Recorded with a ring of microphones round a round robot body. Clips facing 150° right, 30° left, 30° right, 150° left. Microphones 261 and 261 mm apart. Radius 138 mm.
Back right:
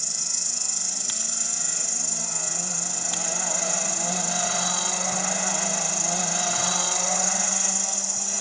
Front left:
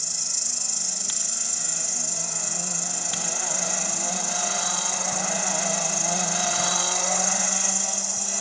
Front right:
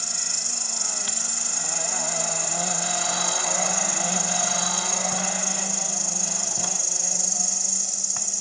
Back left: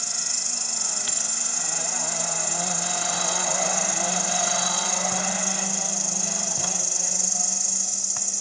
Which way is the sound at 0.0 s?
110° right.